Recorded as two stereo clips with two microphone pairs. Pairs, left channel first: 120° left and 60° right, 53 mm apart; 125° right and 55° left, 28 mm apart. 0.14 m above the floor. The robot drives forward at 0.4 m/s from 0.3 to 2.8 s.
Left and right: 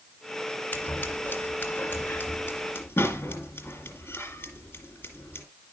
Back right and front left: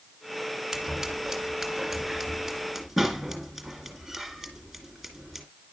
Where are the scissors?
120° left, 1.9 m; by 5.5 s 145° left, 2 m.